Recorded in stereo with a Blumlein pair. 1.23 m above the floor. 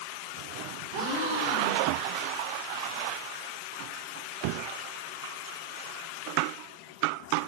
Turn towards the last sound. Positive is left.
turn(degrees=-45)